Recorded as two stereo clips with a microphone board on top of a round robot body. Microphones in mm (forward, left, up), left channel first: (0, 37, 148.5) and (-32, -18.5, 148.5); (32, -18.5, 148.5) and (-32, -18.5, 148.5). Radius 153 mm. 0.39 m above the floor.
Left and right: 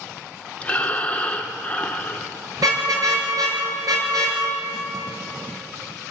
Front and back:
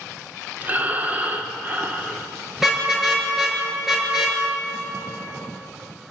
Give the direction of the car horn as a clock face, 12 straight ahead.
3 o'clock.